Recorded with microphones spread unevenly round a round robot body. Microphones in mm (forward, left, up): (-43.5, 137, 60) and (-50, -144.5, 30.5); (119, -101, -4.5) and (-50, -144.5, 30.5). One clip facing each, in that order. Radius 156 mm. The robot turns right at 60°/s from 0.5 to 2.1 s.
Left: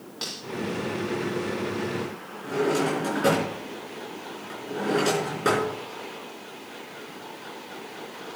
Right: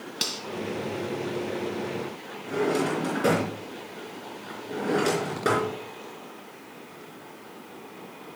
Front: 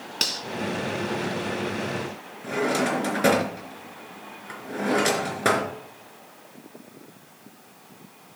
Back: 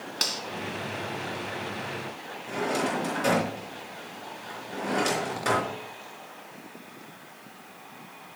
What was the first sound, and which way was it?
Cutlery clinking, 45° right.